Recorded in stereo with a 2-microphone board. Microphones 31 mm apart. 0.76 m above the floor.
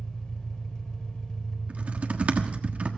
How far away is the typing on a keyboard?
About 1.3 m.